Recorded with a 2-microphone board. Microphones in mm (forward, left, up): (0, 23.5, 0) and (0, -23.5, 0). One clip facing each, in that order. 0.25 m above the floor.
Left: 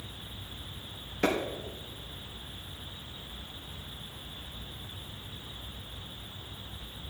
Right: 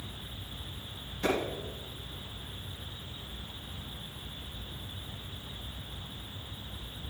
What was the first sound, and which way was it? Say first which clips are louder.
A clap: left 2 dB; 75° left (ahead or behind).